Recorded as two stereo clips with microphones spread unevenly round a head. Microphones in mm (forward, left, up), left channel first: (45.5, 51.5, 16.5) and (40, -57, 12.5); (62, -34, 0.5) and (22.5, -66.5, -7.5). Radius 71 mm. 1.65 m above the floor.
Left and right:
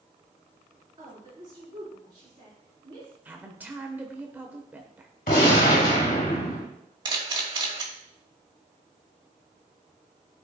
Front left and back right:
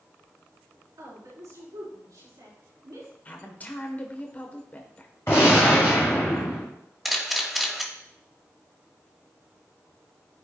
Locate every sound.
1.0 s a woman speaking: 155° right, 4 m
3.2 s a woman speaking: 20° right, 1.3 m
5.3 s a gunshot: 105° left, 2.5 m
7.0 s a camera shutter: 50° right, 2 m